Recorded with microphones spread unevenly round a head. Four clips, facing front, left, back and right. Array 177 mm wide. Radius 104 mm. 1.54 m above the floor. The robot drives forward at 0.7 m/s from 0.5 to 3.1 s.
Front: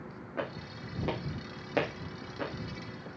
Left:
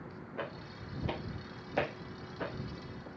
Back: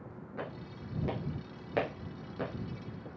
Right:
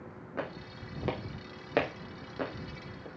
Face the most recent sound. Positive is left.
turn(degrees=-125)